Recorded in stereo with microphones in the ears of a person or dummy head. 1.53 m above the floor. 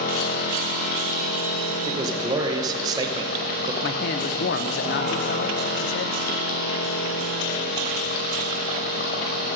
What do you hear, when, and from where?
0.0 s a machine running: 50° left (ahead or behind), 1.9 m
1.9 s a man speaking: 25° right (ahead or behind), 1.3 m
3.8 s a man speaking: 55° left (ahead or behind), 0.8 m